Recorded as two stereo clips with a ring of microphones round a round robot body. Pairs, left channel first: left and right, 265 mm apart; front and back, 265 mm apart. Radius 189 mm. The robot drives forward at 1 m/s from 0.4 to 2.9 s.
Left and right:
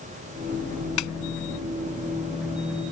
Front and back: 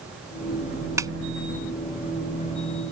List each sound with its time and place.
1.0 s a snare drum: 100° left; by 1.1 s 105° left